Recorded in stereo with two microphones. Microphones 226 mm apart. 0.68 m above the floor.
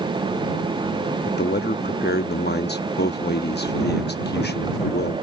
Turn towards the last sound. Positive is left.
turn(degrees=45)  # may be behind; listen again after turning